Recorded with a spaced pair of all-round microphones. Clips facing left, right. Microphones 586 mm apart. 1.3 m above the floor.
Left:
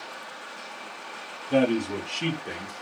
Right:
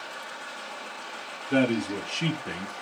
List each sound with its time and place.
1.5 s a man speaking: 10° left (ahead or behind), 0.9 m; by 2.7 s 45° right (ahead or behind), 0.6 m